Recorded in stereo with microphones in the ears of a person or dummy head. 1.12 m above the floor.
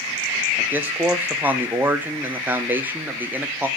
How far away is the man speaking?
About 0.6 m.